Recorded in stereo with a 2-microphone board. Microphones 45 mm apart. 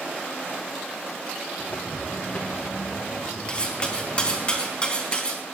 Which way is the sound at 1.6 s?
40° left (ahead or behind).